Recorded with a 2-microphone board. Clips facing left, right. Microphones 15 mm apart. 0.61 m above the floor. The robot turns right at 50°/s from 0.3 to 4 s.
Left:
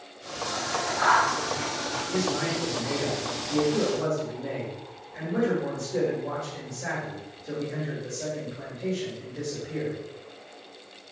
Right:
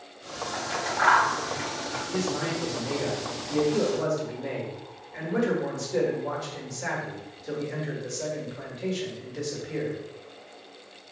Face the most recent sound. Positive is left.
turn(degrees=-110)